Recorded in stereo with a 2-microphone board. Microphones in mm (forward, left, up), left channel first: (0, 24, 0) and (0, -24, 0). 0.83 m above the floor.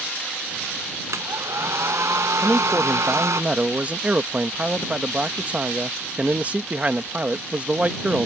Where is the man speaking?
30° right (ahead or behind).